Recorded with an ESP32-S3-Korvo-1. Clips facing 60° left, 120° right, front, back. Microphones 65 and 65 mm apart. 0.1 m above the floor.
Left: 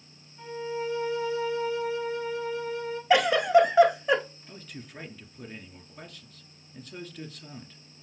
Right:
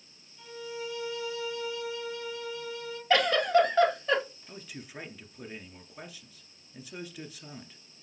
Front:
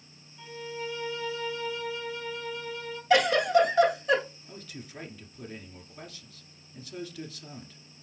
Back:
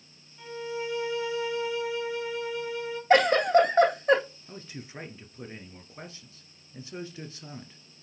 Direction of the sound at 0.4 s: 105° left.